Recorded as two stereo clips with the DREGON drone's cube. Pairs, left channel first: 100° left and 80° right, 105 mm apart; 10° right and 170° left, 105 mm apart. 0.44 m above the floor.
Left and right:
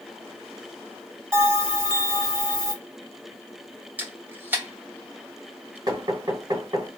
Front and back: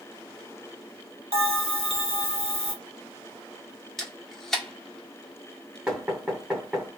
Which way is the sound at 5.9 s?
110° right.